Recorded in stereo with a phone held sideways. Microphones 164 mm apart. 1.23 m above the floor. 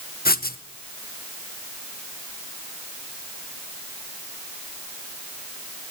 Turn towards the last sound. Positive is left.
turn(degrees=65)  # may be behind; listen again after turning